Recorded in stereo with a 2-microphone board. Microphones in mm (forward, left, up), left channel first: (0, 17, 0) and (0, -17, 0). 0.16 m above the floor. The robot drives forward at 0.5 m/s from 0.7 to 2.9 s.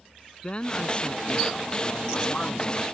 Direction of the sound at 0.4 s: 30° left (ahead or behind).